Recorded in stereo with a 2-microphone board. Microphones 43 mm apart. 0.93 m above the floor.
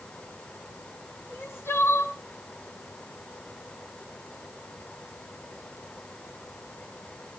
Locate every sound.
1.3 s crying: 65° left (ahead or behind), 4.5 m